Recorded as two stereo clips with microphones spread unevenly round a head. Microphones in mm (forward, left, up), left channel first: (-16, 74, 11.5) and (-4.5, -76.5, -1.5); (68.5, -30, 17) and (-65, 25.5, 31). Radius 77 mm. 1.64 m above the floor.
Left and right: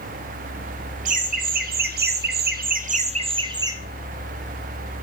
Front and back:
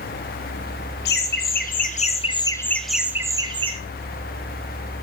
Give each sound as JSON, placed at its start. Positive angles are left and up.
{"t": 1.1, "sound": "laughter", "azimuth_deg": -45, "distance_m": 1.4}